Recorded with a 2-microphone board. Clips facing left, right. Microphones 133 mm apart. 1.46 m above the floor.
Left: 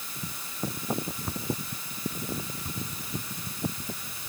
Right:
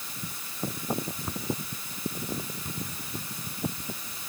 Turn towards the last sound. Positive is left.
No sound to turn to.